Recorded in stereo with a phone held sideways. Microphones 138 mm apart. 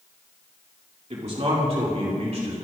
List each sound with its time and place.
1.1 s a man speaking: 55° right (ahead or behind), 2.5 m; by 2.5 s 60° right (ahead or behind), 4 m